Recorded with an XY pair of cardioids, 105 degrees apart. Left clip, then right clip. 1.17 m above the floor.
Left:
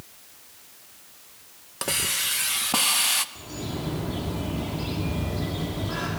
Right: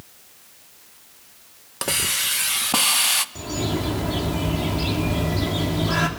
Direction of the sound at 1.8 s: 20° right.